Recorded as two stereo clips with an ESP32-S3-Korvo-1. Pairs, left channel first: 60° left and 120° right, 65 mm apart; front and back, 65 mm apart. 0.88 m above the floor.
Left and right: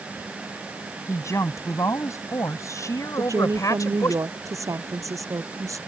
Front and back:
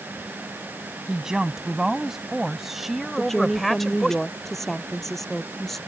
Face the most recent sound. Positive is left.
turn(degrees=-85)